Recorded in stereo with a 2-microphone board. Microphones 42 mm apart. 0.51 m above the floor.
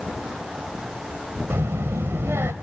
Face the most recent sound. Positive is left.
turn(degrees=-75)  # may be behind; listen again after turning